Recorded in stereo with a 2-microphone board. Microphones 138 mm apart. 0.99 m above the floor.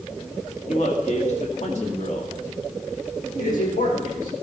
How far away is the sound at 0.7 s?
About 2 m.